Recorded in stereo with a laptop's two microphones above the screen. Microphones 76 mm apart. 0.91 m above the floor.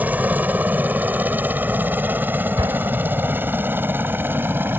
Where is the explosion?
80° right.